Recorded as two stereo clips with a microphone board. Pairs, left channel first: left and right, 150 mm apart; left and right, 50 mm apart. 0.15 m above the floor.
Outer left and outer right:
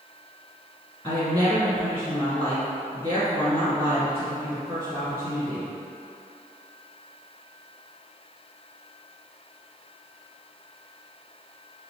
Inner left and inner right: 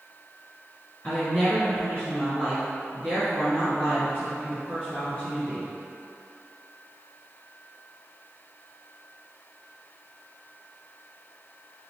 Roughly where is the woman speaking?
Centre.